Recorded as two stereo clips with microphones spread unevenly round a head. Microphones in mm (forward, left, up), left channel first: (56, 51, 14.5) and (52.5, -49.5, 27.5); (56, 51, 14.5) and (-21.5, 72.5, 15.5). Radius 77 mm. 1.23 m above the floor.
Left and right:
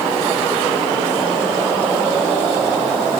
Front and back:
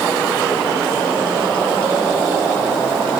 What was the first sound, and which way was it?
Only background noise.